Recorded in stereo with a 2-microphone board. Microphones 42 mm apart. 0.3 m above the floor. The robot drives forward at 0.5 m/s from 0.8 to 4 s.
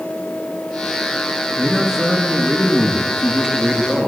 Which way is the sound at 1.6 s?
10° right (ahead or behind).